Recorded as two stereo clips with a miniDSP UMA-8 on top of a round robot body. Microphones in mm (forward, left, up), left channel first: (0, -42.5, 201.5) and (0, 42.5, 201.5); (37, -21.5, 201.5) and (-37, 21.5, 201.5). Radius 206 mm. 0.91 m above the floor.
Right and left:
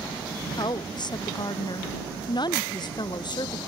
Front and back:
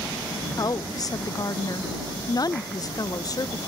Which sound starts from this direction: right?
A woman speaking, at 0.6 s.